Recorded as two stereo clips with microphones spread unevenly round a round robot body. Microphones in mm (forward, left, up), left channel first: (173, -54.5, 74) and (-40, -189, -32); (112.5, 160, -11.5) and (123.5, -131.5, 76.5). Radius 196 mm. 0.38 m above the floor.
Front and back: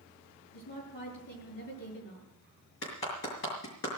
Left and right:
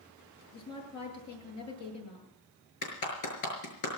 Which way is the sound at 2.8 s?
85° left.